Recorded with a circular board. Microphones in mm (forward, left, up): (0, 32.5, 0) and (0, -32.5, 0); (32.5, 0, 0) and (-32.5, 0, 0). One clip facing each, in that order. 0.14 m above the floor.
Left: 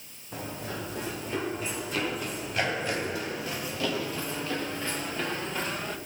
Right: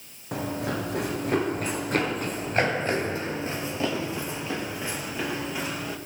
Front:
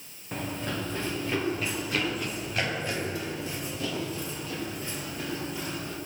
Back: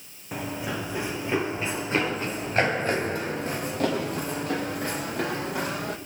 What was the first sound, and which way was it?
Running footsteps, 100° right.